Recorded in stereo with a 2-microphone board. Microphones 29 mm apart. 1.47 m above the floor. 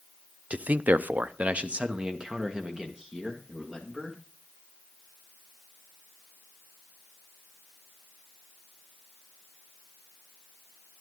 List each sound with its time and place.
0.5 s a man speaking: 50° right (ahead or behind), 0.6 m; by 4.2 s 20° right (ahead or behind), 2.5 m